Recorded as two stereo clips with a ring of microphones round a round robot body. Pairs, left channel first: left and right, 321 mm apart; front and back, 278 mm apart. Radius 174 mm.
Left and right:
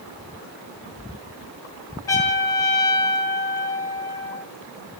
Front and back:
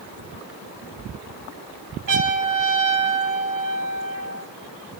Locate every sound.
2.1 s a trumpet: 170° left, 2.5 m